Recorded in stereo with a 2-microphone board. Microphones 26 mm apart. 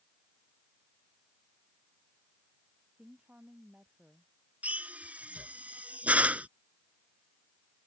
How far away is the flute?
I don't hear a flute.